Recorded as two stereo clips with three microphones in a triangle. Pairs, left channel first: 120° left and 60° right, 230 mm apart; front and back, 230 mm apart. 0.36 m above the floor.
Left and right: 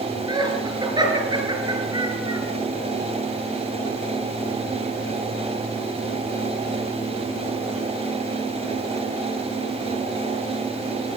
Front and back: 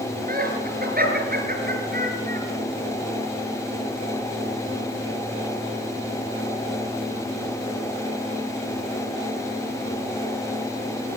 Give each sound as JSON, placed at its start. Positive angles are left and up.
{"t": 0.3, "sound": "laughter", "azimuth_deg": -130, "distance_m": 6.0}